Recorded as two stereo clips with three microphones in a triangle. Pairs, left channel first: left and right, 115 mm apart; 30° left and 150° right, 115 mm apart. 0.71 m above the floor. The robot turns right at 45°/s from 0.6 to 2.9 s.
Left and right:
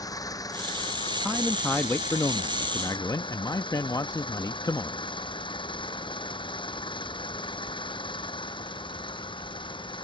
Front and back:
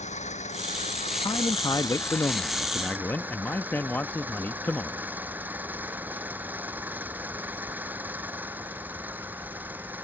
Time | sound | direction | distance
0.0 | an engine running | 30° left | ?
1.2 | a man speaking | 10° left | ?